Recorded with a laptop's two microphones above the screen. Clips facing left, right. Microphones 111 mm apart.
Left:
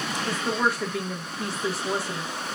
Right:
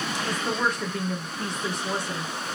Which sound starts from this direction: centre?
A woman speaking, at 0.3 s.